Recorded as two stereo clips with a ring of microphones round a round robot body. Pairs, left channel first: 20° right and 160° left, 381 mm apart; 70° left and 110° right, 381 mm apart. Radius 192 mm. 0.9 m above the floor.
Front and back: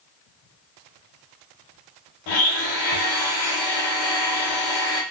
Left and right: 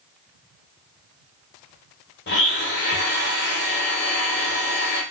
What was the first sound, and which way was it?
A blender, 5° left.